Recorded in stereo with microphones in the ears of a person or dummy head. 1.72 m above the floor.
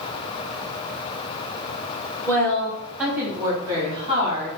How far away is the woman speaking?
About 1.4 m.